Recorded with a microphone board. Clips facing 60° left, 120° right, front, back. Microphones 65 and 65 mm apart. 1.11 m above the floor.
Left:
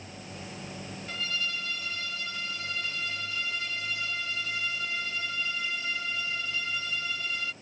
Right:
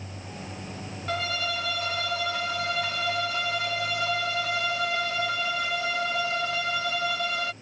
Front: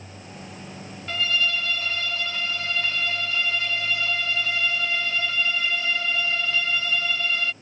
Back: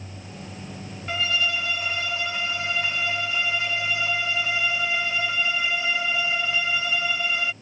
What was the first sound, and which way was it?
A violin, 105° right.